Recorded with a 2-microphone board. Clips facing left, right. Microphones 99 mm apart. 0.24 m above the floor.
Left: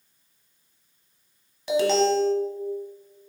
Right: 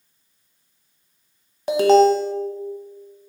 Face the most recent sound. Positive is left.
turn(degrees=-45)  # may be behind; listen again after turning